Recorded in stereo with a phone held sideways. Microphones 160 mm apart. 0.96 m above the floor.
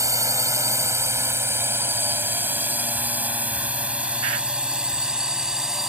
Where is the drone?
20° right (ahead or behind); by 5.9 s 5° right (ahead or behind).